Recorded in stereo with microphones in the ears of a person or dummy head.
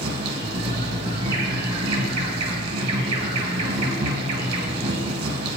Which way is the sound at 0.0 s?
30° right (ahead or behind).